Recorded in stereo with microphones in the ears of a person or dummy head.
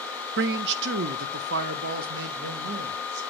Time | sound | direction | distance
0.4 | a man speaking | 60° right (ahead or behind) | 0.6 m